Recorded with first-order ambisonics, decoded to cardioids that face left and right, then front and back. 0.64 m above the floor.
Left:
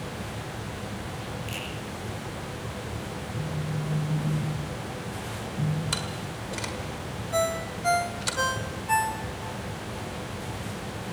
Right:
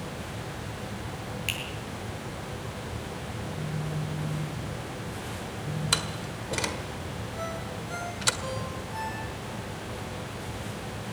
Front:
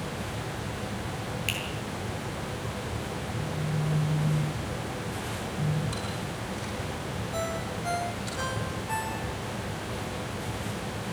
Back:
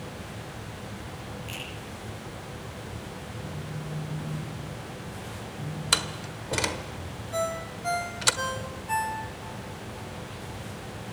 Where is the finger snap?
40° right, 9.5 m.